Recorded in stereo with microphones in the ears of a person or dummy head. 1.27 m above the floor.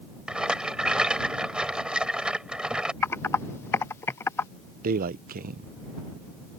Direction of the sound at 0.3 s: 5° right (ahead or behind).